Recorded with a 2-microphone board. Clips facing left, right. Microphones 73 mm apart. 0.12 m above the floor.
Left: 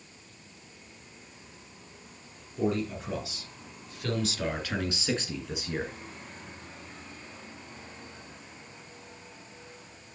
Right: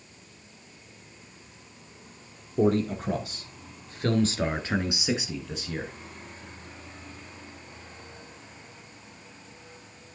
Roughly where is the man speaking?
Right.